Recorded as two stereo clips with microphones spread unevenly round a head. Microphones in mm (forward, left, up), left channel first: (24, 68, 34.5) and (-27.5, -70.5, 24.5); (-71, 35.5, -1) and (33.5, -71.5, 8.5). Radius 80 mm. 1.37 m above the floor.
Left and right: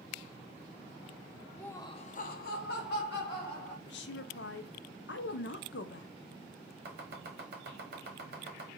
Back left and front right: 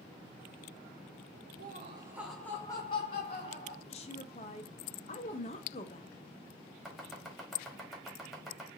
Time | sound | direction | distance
1.6 | laughter | 15° right | 0.6 m
3.9 | a woman speaking | 80° left | 0.5 m
6.8 | chopping | 130° right | 1.1 m